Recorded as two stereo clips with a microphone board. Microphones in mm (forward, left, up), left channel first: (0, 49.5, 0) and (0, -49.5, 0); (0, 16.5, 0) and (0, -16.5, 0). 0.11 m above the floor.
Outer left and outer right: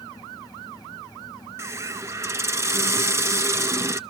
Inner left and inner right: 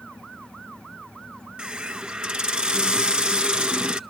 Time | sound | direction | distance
1.6 | a hiss | 30° right (ahead or behind) | 0.6 m